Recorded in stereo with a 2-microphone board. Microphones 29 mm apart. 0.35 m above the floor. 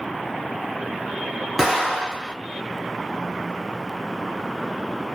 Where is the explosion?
10° right (ahead or behind), 2 m.